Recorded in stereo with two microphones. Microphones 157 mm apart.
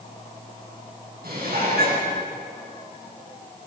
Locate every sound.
1.2 s dishes clattering: 75° right (ahead or behind), 9.5 m